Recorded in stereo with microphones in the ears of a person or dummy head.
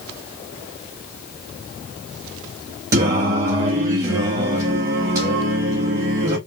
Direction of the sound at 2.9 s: 20° right (ahead or behind).